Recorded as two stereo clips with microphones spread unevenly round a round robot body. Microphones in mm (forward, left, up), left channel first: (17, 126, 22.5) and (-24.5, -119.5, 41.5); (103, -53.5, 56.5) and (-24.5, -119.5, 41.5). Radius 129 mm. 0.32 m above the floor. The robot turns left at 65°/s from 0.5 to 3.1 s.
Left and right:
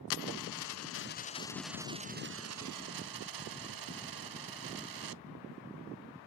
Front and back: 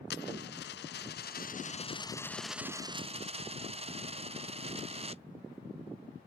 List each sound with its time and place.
0.1 s a dropped coin: 65° left; by 5.2 s 105° right